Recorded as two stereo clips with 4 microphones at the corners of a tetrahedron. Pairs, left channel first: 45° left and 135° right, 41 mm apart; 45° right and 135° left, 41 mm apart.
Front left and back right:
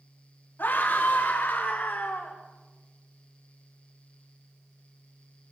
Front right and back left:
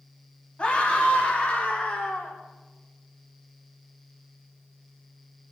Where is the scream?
15° left, 4.5 m; by 2.4 s 10° left, 5.5 m.